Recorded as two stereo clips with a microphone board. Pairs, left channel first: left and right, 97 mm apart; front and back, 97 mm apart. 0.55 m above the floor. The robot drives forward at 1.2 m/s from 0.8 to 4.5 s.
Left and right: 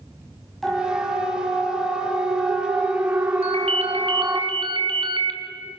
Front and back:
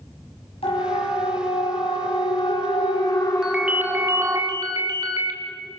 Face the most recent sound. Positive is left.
turn(degrees=-130)